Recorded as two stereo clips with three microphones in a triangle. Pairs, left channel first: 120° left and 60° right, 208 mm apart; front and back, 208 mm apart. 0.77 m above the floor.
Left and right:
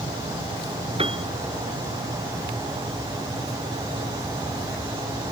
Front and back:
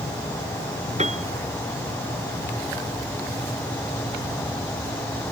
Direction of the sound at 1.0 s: 120° right.